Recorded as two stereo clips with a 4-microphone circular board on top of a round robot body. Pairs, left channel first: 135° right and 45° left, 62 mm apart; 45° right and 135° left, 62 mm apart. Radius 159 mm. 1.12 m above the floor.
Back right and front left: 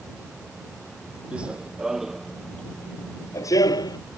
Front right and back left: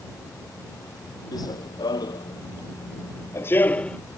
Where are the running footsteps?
25° right; by 4.0 s 120° right.